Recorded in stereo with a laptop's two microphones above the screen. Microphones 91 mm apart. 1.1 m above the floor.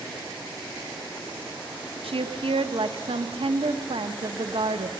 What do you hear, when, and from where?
2.0 s a woman speaking: 75° right (ahead or behind), 0.9 m